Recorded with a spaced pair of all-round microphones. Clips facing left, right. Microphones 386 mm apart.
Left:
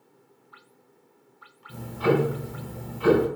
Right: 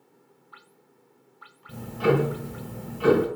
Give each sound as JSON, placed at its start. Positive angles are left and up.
{"t": 1.7, "sound": "ticking", "side_deg": -75, "distance_m": 1.1}